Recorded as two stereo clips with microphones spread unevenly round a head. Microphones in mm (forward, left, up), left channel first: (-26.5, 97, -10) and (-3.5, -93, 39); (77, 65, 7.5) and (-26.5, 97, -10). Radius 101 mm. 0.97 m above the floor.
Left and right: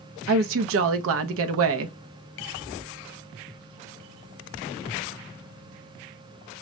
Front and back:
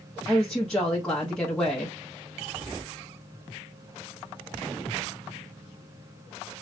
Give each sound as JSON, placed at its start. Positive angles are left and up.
{"t": 0.3, "sound": "a woman speaking", "azimuth_deg": -105, "distance_m": 0.6}